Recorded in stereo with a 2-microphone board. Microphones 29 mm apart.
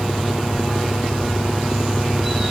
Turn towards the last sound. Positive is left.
turn(degrees=-10)  # may be behind; listen again after turning